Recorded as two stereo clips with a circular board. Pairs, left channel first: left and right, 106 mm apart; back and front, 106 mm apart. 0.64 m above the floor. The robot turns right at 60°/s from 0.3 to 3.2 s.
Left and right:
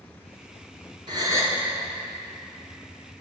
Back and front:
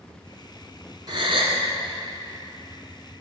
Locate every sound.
1.1 s a gasp: 50° right, 1.4 m; by 1.6 s 20° right, 1.4 m